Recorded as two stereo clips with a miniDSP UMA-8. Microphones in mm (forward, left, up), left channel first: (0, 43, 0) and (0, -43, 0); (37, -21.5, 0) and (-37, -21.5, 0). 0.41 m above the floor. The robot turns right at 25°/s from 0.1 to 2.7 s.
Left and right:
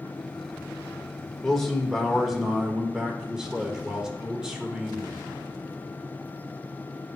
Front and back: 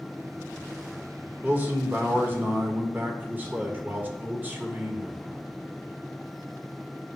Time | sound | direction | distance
1.4 | a man speaking | 165° left | 1.1 m